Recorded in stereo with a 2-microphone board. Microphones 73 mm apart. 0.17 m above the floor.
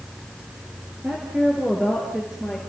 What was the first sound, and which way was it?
A woman speaking, 20° right (ahead or behind).